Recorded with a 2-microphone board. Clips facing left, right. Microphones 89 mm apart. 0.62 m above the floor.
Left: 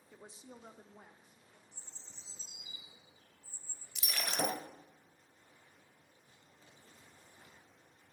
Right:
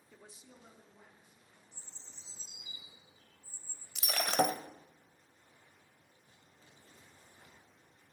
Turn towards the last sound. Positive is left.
turn(degrees=-60)  # may be behind; listen again after turning